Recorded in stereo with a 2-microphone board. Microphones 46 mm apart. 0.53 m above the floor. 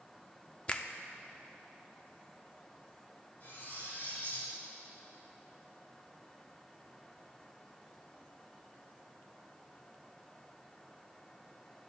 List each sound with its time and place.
0.7 s a finger snap: 25° left (ahead or behind), 0.5 m
3.4 s cutlery clinking: 50° left (ahead or behind), 3 m